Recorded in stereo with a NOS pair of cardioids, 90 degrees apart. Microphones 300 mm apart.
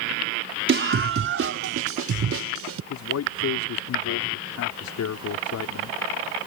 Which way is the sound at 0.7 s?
40° right.